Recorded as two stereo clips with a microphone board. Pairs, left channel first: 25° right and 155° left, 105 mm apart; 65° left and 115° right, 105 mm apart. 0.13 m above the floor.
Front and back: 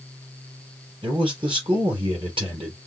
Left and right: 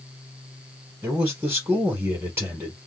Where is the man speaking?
175° right, 3.5 m.